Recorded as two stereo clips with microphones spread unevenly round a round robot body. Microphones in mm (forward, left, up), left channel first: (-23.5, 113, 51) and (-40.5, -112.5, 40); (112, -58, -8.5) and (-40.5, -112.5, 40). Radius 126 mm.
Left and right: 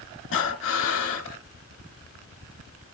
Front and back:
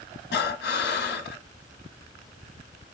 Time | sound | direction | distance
0.3 | breathing | 45° left | 0.7 m